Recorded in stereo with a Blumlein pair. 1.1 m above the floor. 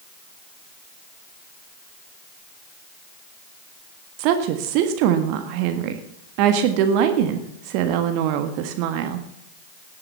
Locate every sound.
4.2 s a woman speaking: 45° right, 1.5 m